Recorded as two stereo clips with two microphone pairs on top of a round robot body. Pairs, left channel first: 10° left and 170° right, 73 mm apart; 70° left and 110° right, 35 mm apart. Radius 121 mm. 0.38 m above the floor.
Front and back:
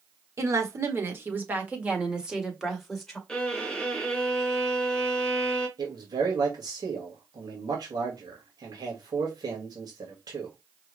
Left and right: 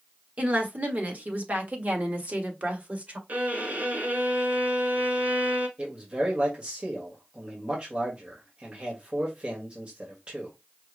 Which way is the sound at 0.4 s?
140° right.